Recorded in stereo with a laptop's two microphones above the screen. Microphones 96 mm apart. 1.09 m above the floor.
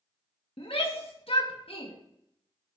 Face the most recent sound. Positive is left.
turn(degrees=75)  # may be behind; listen again after turning